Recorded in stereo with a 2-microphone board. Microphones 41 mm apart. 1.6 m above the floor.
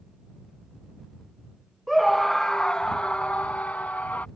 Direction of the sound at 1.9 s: 5° right (ahead or behind).